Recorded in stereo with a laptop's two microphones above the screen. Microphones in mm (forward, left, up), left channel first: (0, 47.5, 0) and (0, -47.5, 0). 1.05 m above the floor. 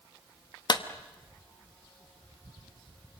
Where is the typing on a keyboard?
I don't hear typing on a keyboard.